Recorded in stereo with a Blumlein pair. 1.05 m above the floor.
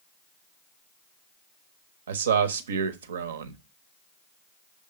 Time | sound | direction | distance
2.1 | a man speaking | 65° right | 0.9 m